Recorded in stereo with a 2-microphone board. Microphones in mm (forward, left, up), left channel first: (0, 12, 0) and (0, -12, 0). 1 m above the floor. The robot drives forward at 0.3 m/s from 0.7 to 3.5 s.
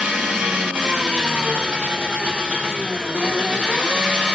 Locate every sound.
0.0 s an engine running: 75° right (ahead or behind), 1.5 m; by 4.4 s 55° right (ahead or behind), 1.8 m